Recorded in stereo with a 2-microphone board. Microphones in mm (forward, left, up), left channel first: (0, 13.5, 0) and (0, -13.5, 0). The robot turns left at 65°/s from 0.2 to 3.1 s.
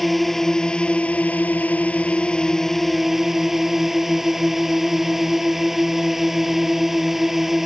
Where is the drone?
Straight behind; by 7.7 s 10° right.